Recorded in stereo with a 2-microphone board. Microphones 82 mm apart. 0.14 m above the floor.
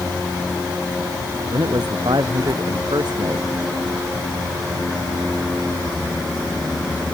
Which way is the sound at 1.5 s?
65° right (ahead or behind).